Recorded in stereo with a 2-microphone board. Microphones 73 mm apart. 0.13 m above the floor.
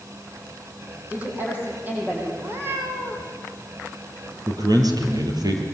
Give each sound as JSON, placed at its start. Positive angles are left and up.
{"t": 1.1, "sound": "a woman speaking", "side_deg": -25, "distance_m": 6.0}
{"t": 2.4, "sound": "a cat meowing", "side_deg": -30, "distance_m": 4.0}
{"t": 4.5, "sound": "a man speaking", "side_deg": -60, "distance_m": 4.0}